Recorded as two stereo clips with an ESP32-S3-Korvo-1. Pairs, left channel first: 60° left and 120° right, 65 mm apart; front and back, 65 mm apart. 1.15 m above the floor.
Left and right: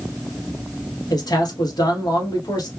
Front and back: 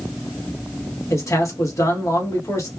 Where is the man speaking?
40° left, 1.2 m.